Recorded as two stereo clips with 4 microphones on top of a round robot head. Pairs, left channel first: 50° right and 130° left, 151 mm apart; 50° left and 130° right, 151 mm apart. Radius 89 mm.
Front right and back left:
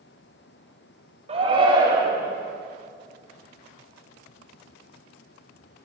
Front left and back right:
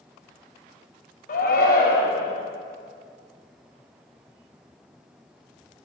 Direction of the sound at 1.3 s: 80° left.